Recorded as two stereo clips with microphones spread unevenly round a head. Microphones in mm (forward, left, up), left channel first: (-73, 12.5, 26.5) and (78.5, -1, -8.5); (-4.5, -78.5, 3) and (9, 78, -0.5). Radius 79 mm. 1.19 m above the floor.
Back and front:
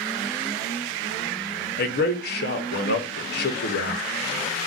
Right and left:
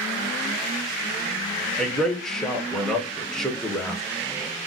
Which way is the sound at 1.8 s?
175° left.